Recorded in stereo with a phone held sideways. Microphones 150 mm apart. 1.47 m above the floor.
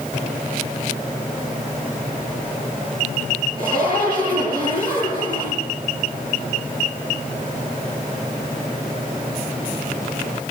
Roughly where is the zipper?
Left.